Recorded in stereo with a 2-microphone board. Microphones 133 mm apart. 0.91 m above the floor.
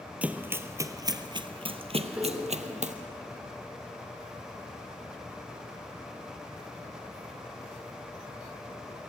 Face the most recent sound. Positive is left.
turn(degrees=-10)  # may be behind; listen again after turning